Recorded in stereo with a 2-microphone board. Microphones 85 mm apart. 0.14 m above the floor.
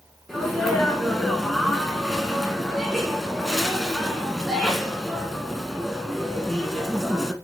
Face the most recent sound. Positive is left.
turn(degrees=5)  # may be behind; listen again after turning